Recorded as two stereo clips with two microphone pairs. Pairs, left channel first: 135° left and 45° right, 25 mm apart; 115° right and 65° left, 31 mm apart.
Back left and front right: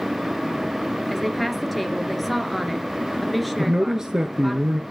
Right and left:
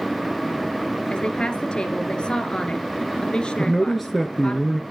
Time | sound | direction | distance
1.1 | a woman speaking | 135° right | 1.8 m
3.6 | a man speaking | 20° right | 1.3 m